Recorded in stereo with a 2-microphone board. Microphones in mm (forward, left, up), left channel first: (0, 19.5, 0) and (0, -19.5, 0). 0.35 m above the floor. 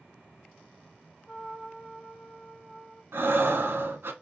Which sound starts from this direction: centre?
A trumpet, at 1.3 s.